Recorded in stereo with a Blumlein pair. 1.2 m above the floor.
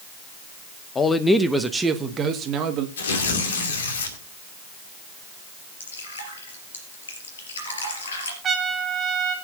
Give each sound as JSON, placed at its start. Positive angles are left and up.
{"t": 0.9, "sound": "a man speaking", "azimuth_deg": 20, "distance_m": 0.9}
{"t": 3.0, "sound": "tearing paper", "azimuth_deg": 65, "distance_m": 2.5}
{"t": 5.8, "sound": "dripping", "azimuth_deg": 65, "distance_m": 3.5}
{"t": 8.4, "sound": "a trumpet", "azimuth_deg": -20, "distance_m": 2.0}